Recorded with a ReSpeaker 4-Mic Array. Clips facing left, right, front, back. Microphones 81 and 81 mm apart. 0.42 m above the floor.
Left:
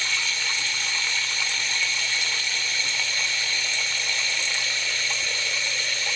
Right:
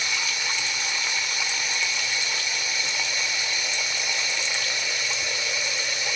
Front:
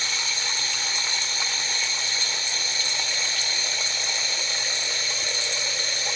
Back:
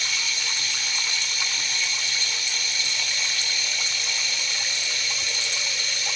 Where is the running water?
25° right, 1.3 m.